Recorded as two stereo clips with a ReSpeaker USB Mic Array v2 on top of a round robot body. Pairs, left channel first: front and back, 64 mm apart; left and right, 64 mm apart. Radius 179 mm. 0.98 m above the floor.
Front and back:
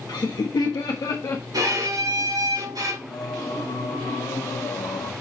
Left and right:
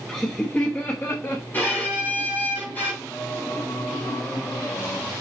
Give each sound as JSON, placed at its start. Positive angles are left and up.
{"t": 0.1, "sound": "laughter", "azimuth_deg": 10, "distance_m": 1.6}
{"t": 1.5, "sound": "a violin", "azimuth_deg": 155, "distance_m": 4.0}
{"t": 3.1, "sound": "singing", "azimuth_deg": 30, "distance_m": 1.0}